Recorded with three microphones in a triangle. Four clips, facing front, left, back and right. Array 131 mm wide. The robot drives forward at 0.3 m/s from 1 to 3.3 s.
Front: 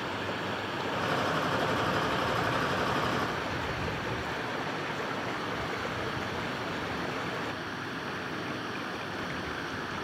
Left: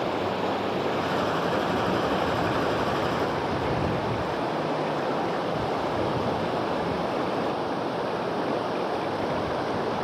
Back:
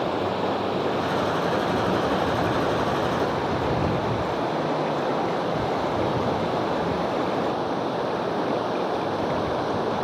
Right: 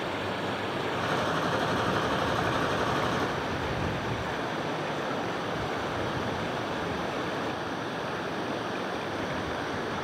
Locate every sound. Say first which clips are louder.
0.0 s running water: left 5 dB, back 10 dB; 155° left; by 10.0 s 160° left